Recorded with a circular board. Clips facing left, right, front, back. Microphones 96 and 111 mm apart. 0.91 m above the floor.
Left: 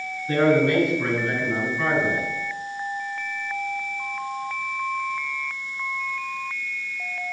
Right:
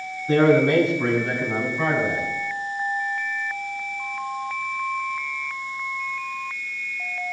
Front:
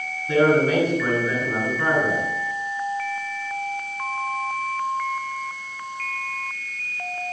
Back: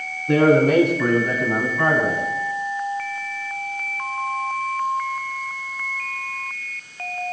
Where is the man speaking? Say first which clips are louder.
Right 2 dB, back 3 dB; 155° right, 9.5 m.